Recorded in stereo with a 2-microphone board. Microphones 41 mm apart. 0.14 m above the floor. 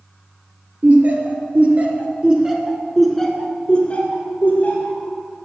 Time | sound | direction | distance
0.8 | laughter | 50° right (ahead or behind) | 2 m